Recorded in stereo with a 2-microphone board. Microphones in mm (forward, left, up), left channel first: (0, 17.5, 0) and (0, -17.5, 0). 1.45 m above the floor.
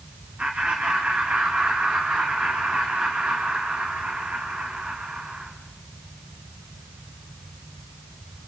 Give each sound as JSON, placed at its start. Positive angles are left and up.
{"t": 0.4, "sound": "laughter", "side_deg": -40, "distance_m": 2.0}